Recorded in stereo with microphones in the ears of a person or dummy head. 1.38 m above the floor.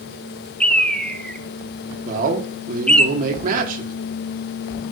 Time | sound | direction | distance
0.6 | a bird | centre (ahead or behind) | 0.7 m
2.0 | a man speaking | 50° right (ahead or behind) | 2.5 m